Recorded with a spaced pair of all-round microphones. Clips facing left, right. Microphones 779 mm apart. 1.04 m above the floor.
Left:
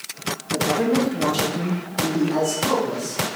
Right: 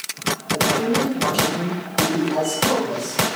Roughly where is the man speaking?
Left.